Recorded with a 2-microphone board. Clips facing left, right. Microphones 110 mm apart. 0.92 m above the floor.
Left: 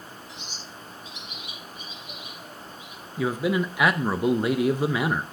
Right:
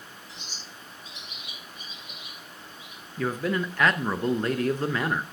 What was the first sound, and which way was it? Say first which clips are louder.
A bird: left 3 dB; 35° right (ahead or behind).